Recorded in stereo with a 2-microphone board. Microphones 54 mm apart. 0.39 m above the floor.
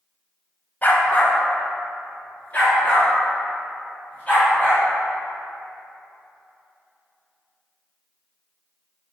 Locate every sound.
0.8 s a dog barking: 35° left (ahead or behind), 0.8 m; by 4.8 s 20° left (ahead or behind), 5.5 m